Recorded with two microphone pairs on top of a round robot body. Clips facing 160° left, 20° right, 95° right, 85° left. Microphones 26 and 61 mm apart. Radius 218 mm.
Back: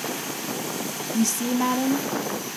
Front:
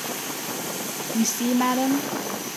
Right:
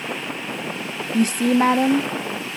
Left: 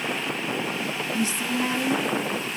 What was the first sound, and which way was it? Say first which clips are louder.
A woman speaking: front 1 dB, right 10 dB; 95° right.